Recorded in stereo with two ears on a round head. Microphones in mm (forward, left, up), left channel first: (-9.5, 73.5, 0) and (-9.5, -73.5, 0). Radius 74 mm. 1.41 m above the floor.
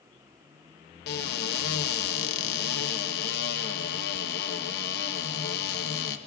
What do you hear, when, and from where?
1.1 s a cupboard door: 70° left (ahead or behind), 0.8 m